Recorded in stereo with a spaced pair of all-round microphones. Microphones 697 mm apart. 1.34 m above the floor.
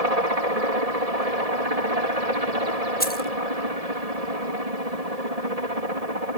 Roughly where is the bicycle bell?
I don't hear a bicycle bell.